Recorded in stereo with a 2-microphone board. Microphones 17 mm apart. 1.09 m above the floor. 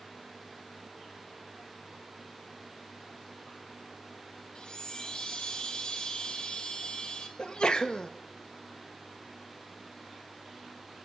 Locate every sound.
4.5 s a chime: 45° left (ahead or behind), 1.9 m
7.4 s a sneeze: 50° left (ahead or behind), 1.2 m